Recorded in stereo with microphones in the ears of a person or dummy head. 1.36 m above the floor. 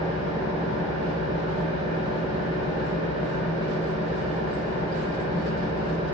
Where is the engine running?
35° right (ahead or behind), 1.7 m.